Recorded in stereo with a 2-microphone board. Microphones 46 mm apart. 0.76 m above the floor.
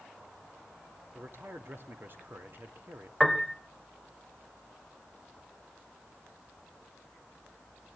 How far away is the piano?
About 1.2 m.